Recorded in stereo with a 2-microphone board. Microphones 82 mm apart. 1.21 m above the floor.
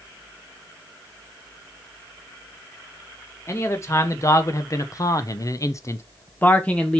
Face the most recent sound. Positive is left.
turn(degrees=10)  # may be behind; listen again after turning